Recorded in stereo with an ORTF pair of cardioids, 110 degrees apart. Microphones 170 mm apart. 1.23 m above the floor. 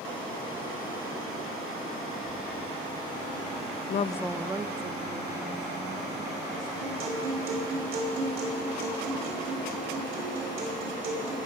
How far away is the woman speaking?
About 0.6 m.